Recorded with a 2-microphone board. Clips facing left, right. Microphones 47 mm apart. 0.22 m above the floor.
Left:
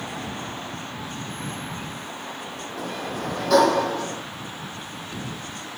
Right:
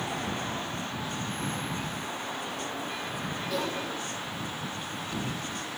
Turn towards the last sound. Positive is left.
turn(degrees=75)  # may be behind; listen again after turning